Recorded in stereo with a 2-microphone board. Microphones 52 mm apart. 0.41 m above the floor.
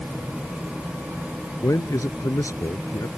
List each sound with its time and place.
1.6 s a man speaking: 80° left